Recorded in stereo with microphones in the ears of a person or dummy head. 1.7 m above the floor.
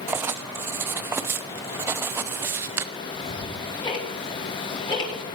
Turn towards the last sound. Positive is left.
turn(degrees=30)  # may be behind; listen again after turning